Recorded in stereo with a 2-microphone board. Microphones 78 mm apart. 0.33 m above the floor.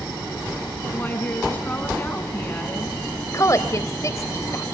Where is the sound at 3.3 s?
40° left (ahead or behind), 1.4 m.